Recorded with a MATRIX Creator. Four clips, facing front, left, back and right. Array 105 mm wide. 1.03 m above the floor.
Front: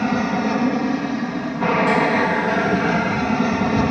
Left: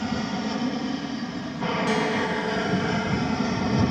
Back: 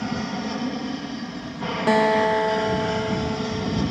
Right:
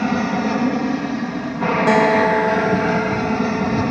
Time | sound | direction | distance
0.0 | an aircraft | 50° right | ?
1.9 | a guitar | 115° right | ?